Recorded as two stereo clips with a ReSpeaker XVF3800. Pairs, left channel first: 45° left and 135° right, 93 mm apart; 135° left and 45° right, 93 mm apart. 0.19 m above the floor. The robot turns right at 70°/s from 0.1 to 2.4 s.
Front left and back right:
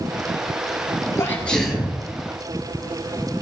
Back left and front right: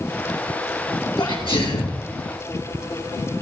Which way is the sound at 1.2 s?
100° left.